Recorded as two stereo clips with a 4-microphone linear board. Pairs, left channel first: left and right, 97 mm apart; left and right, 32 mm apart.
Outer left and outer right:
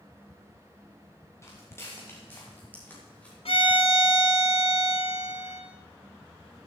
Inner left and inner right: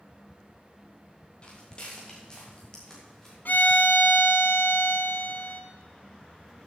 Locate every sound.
1.4 s footsteps: 25° left (ahead or behind), 4.5 m; by 3.4 s 10° left (ahead or behind), 5.5 m
3.5 s a violin: 75° left (ahead or behind), 1.3 m